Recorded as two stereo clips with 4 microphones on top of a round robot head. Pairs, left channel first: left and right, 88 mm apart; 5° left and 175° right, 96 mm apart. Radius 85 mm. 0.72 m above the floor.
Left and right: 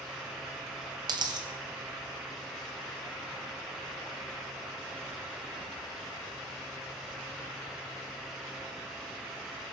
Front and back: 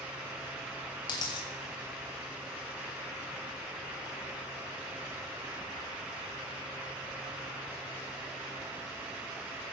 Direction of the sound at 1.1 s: 50° right.